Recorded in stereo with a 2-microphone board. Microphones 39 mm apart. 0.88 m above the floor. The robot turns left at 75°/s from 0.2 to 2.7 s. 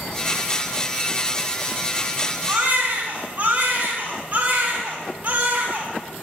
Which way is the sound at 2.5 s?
15° right (ahead or behind).